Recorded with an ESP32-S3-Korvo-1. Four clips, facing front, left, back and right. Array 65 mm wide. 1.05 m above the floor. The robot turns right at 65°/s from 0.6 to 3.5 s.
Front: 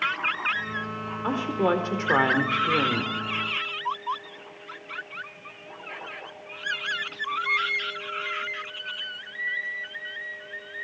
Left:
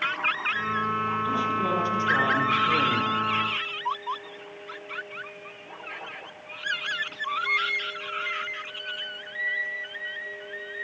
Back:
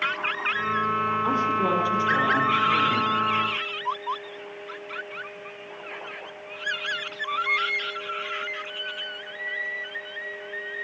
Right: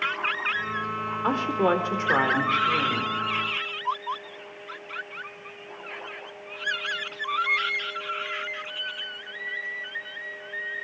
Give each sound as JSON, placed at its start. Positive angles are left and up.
{"t": 1.2, "sound": "a woman speaking", "azimuth_deg": -85, "distance_m": 4.0}